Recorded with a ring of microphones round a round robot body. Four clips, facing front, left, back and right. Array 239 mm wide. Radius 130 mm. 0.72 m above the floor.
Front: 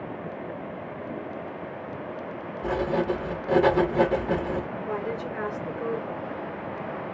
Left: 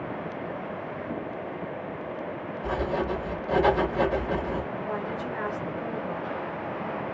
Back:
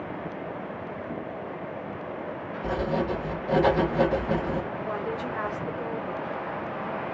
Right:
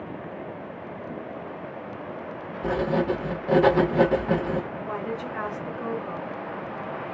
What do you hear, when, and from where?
2.6 s writing: 75° right, 1.0 m
4.8 s a woman speaking: 100° right, 1.9 m